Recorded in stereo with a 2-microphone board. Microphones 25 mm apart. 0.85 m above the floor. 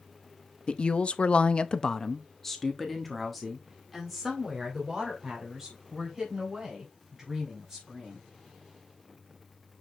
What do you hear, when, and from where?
0.7 s a woman speaking: 40° left (ahead or behind), 0.8 m; by 8.3 s 5° right (ahead or behind), 5.5 m